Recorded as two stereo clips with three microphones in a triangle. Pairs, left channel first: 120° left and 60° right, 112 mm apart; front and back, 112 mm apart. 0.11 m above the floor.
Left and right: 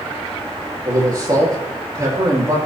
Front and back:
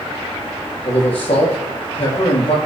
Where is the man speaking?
5° right, 4 m.